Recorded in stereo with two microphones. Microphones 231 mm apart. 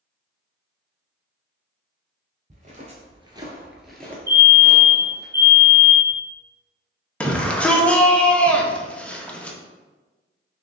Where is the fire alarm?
50° right (ahead or behind), 1.4 m.